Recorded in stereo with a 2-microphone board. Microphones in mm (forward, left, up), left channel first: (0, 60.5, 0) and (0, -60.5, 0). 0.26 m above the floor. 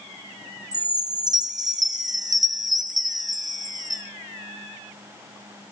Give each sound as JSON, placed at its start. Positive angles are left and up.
{"t": 0.7, "sound": "a chime", "side_deg": -35, "distance_m": 3.0}